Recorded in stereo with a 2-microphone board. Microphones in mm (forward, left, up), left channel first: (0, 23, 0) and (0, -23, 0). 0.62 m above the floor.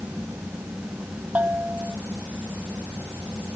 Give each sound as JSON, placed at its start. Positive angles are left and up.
{"t": 1.4, "sound": "a bell", "side_deg": -40}